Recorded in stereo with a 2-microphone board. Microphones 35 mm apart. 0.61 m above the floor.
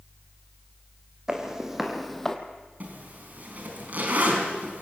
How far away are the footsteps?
About 2.5 m.